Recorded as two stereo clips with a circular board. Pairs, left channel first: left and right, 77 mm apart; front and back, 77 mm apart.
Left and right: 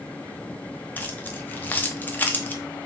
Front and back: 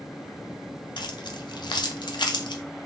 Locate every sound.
1.0 s keys jangling: 20° left, 0.6 m